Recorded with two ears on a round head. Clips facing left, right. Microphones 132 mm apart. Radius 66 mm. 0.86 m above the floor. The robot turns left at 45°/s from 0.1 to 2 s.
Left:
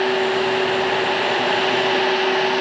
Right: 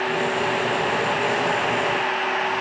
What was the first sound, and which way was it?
Only background noise.